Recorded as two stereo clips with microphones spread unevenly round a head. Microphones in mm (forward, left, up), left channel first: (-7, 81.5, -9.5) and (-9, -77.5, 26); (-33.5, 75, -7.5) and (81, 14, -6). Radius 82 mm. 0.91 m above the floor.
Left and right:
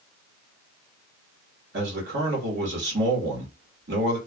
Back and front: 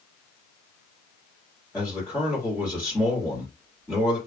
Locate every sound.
1.7 s a man speaking: 110° right, 1.5 m